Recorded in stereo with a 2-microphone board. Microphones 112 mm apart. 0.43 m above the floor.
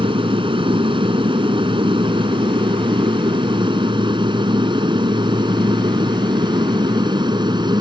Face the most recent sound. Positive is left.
turn(degrees=-40)  # may be behind; listen again after turning